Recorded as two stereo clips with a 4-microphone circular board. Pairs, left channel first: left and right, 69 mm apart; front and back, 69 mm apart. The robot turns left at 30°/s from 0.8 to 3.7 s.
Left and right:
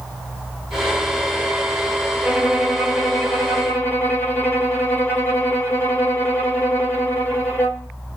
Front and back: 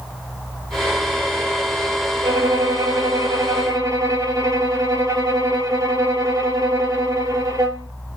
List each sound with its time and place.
2.2 s a violin: 170° right, 6.5 m; by 7.9 s 150° left, 6.5 m